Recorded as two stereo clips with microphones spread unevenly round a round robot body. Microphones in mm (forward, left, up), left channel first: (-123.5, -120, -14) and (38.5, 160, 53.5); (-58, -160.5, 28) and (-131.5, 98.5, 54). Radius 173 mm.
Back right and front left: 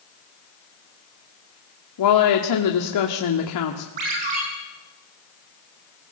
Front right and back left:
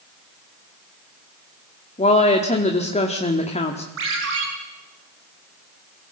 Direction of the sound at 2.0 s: 140° right.